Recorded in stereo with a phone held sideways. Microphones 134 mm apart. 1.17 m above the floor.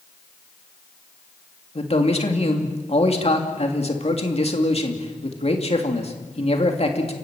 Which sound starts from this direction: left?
A man speaking, at 1.8 s.